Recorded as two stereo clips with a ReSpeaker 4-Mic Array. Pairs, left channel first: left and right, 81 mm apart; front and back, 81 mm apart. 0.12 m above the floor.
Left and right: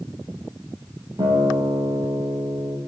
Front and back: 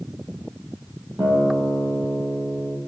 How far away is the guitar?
About 0.8 m.